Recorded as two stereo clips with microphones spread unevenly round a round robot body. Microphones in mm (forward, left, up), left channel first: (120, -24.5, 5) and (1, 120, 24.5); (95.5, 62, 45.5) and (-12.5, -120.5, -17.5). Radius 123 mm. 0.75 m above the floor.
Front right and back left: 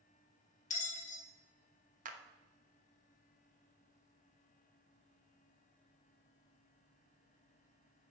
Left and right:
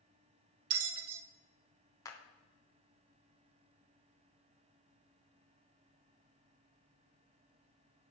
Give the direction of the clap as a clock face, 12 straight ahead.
7 o'clock.